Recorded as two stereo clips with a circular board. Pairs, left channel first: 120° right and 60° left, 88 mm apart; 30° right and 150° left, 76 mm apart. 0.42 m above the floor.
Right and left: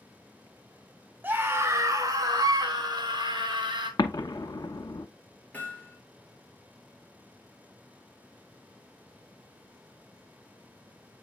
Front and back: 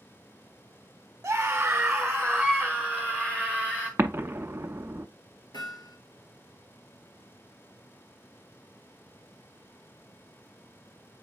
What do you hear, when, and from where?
1.2 s a scream: 115° left, 0.9 m; by 3.9 s 35° left, 2.5 m
4.0 s an explosion: 150° right, 0.6 m
5.5 s hammering: 45° right, 2.5 m